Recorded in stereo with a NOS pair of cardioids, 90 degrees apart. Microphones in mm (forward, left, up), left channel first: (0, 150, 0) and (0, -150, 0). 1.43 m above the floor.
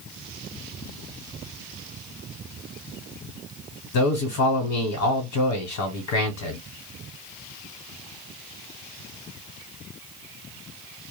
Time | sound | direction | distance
3.9 | a man speaking | 70° left | 1.1 m